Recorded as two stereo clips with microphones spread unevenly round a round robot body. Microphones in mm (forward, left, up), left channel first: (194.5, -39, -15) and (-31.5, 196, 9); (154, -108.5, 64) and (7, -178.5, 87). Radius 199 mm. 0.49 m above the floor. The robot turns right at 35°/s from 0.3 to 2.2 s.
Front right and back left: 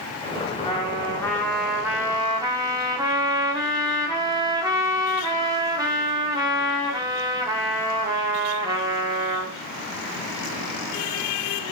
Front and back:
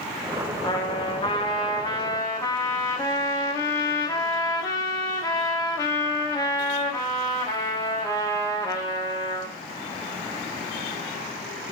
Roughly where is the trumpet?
Ahead.